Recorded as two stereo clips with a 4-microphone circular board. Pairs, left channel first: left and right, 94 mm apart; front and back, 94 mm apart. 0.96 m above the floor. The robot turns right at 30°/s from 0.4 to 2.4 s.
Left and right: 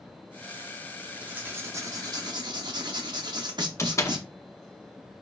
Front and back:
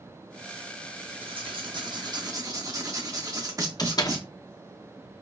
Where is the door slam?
35° left, 0.6 m.